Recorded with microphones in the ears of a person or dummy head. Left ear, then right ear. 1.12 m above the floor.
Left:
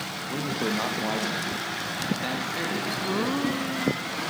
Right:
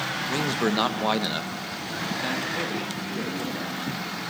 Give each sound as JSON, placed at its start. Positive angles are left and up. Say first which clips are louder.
{"t": 0.3, "sound": "a man speaking", "louder": "right 2 dB", "side_deg": -75, "distance_m": 1.1}